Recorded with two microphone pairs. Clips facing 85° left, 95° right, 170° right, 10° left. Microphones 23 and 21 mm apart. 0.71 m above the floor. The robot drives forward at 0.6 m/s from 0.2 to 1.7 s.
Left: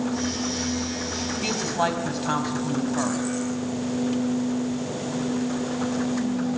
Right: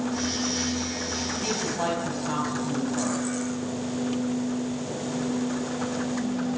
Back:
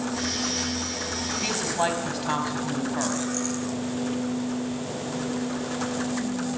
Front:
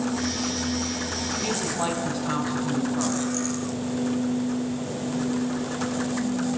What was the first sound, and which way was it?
A woman speaking, 135° left.